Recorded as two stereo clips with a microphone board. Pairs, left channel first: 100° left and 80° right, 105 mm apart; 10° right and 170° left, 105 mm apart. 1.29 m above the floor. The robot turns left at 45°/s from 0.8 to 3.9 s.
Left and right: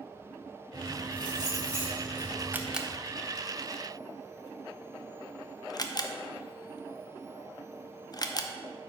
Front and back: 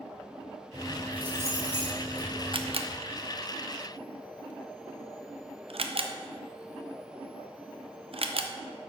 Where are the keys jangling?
100° right, 2.5 m; by 2.7 s 175° left, 2.5 m.